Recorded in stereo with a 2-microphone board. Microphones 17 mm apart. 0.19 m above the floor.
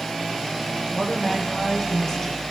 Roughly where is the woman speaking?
Left.